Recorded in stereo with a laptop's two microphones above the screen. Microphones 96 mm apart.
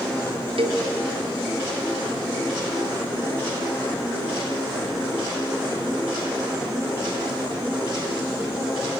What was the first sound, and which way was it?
A cowbell, 70° right (ahead or behind).